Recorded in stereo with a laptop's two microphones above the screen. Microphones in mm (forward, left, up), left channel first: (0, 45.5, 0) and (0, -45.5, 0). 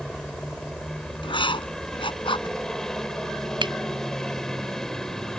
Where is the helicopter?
5° left (ahead or behind).